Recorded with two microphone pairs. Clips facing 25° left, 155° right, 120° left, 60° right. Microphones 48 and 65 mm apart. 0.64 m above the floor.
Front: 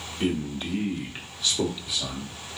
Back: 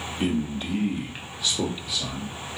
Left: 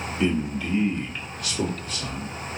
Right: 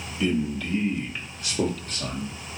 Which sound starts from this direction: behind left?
A man speaking, at 0.2 s.